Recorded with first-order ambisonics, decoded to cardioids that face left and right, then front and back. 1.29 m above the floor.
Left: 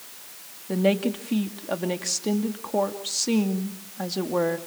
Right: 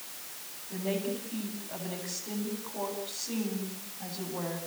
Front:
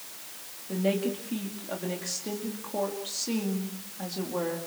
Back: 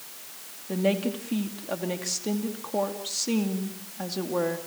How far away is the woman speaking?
About 2.5 m.